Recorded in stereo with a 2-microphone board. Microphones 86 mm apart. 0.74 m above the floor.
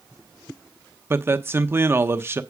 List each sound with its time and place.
1.1 s a man speaking: 25° right (ahead or behind), 0.9 m